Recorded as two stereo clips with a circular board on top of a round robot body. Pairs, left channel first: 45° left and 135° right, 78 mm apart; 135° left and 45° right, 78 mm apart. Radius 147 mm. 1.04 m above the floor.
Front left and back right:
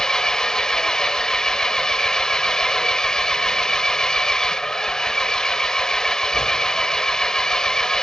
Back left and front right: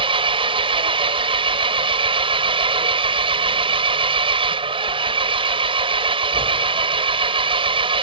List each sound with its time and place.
0.0 s an engine running: 40° right